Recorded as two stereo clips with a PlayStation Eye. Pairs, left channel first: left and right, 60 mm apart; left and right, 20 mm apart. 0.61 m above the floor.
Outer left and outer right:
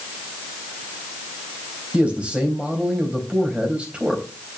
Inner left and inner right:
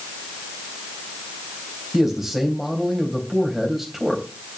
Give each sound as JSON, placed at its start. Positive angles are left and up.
{"t": 1.9, "sound": "a man speaking", "side_deg": -15, "distance_m": 3.5}